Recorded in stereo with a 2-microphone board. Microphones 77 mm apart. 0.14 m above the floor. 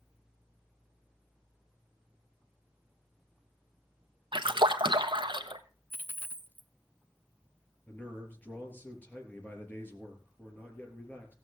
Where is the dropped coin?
20° left (ahead or behind), 0.6 m.